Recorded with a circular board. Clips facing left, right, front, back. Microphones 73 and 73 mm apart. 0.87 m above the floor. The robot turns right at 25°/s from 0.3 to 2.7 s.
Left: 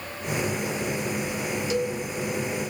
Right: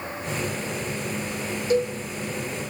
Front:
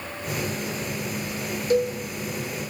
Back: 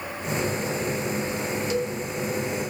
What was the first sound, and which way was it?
A cowbell, 40° right.